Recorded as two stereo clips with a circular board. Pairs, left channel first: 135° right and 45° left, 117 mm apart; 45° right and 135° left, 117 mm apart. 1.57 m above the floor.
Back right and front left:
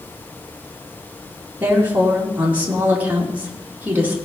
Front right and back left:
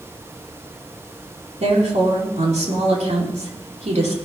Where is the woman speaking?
120° left, 2.5 m.